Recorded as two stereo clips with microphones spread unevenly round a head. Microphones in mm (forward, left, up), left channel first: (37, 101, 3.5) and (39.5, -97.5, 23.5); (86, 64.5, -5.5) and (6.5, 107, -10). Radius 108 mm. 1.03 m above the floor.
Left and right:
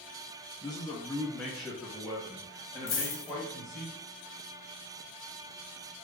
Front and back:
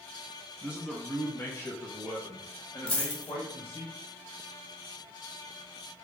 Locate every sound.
0.6 s a man speaking: 100° left, 0.7 m; by 3.9 s 15° right, 1.7 m
2.9 s a dropped coin: 55° left, 1.6 m